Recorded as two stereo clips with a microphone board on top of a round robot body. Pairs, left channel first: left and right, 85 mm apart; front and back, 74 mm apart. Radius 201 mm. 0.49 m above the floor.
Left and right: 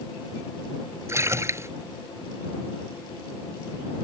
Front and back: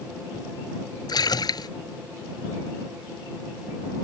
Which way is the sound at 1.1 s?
30° right.